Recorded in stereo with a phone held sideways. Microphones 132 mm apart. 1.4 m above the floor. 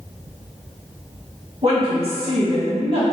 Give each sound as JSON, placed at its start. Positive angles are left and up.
{"t": 1.6, "sound": "a woman speaking", "side_deg": -45, "distance_m": 1.6}